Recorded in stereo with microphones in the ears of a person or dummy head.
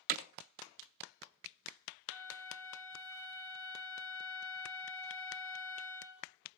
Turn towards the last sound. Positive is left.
turn(degrees=15)  # may be behind; listen again after turning